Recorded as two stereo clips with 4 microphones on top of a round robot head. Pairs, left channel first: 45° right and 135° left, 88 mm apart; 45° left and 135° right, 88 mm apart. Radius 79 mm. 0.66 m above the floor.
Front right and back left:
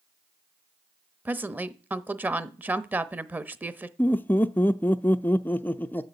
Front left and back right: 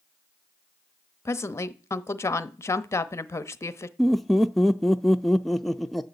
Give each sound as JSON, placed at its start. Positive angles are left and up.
{"t": 1.2, "sound": "a woman speaking", "azimuth_deg": 80, "distance_m": 0.9}
{"t": 4.0, "sound": "laughter", "azimuth_deg": -40, "distance_m": 0.5}